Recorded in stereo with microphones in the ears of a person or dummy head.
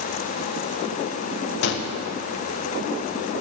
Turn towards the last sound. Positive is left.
turn(degrees=70)  # may be behind; listen again after turning